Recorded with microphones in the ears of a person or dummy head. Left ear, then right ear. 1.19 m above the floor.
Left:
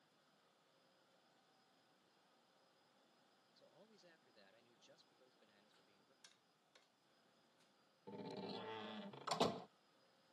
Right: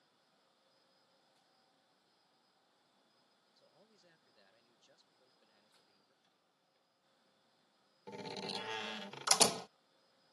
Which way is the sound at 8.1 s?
70° right (ahead or behind).